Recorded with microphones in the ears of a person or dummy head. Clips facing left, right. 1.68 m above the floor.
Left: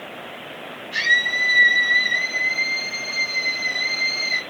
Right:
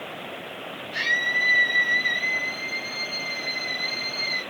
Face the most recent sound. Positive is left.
turn(degrees=70)  # may be behind; listen again after turning